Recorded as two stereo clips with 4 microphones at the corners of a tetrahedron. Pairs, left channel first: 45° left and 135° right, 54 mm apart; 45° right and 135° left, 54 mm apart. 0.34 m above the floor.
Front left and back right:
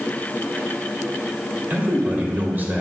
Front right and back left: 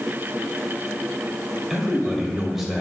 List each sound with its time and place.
1.7 s a man speaking: 140° right, 1.1 m